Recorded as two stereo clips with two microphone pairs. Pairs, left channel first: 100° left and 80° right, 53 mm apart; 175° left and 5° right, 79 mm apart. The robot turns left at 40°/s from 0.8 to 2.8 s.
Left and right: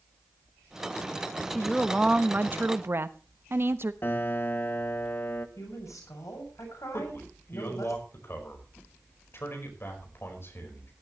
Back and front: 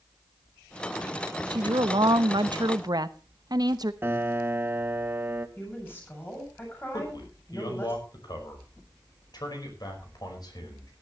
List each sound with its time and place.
1.5 s a woman speaking: 15° left, 1.0 m; by 3.9 s 40° right, 1.0 m
4.0 s a piano: 50° left, 1.0 m
5.6 s a woman speaking: 110° left, 7 m
6.9 s a man speaking: 140° left, 5 m